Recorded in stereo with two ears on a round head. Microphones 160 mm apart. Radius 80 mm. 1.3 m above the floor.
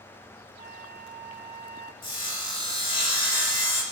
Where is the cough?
I don't hear a cough.